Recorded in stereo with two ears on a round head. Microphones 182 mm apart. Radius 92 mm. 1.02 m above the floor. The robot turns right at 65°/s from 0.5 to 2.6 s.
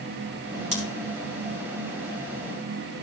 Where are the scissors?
35° right (ahead or behind), 3.5 m; by 0.8 s 40° right (ahead or behind), 3.5 m.